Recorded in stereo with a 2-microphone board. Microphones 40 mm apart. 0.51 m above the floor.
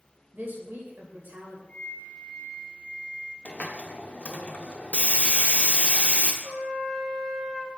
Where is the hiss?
35° left (ahead or behind), 0.7 m.